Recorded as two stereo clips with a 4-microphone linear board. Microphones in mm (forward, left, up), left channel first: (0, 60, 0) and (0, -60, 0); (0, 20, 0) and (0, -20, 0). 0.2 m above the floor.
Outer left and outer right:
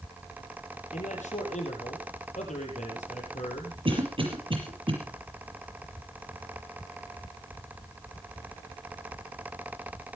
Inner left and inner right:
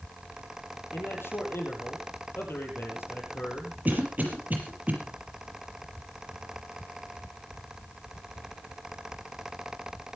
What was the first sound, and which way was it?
A man speaking, 80° left.